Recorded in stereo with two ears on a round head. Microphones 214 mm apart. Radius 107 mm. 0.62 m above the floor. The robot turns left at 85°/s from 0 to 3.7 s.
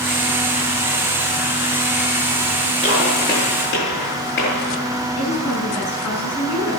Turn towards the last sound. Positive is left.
turn(degrees=75)  # may be behind; listen again after turning